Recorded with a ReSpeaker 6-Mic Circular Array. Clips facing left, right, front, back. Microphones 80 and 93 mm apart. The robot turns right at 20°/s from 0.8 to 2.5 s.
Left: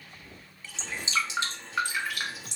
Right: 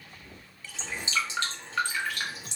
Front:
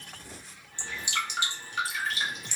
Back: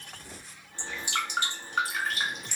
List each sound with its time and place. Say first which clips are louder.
0.8 s dripping: left 1 dB, back 1 dB; 145° left, 1.3 m; by 2.6 s straight behind, 1.3 m